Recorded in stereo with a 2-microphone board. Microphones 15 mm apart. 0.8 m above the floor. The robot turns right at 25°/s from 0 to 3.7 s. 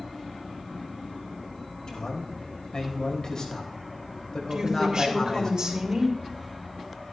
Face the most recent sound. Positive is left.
turn(degrees=-60)  # may be behind; listen again after turning